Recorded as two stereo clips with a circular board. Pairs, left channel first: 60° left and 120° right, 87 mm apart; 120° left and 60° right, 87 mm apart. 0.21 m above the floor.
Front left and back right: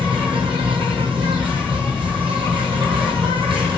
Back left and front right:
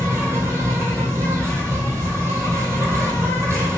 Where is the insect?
120° right, 1.3 m.